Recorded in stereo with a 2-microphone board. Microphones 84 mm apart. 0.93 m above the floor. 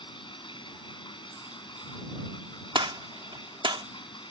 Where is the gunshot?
75° right (ahead or behind).